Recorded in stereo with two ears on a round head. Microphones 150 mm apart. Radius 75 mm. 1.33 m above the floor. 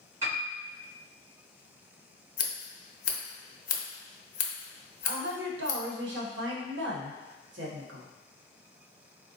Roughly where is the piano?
Centre.